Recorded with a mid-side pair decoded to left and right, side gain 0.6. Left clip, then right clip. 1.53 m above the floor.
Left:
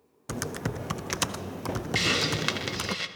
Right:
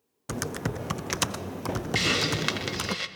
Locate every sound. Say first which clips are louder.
0.3 s typing on a keyboard: right 1 dB; 10° right, 0.5 m
1.9 s a hiss: even; 5° right, 1.0 m